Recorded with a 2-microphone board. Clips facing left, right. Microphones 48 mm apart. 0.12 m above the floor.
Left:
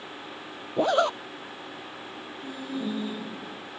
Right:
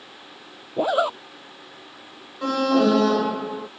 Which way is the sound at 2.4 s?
70° right (ahead or behind).